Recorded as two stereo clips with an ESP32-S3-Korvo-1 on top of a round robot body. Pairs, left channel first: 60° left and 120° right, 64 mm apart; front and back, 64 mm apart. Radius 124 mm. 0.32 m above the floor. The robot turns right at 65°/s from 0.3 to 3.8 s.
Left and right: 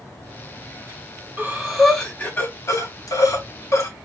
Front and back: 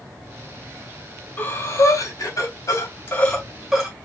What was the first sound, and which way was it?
Breathing, 60° right.